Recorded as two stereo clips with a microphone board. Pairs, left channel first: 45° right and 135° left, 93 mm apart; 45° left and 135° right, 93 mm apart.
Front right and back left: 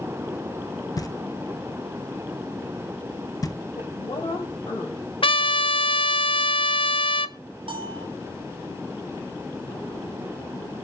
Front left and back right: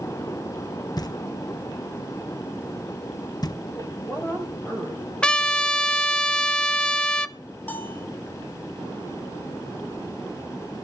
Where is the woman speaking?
20° right, 6.5 m.